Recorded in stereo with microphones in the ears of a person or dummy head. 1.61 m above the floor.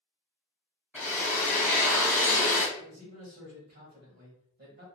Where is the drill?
10° right (ahead or behind), 0.7 m.